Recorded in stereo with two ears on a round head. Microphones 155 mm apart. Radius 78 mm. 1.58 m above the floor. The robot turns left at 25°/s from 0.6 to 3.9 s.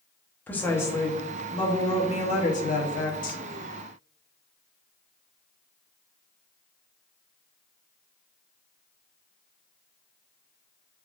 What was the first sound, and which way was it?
A woman speaking, 165° left.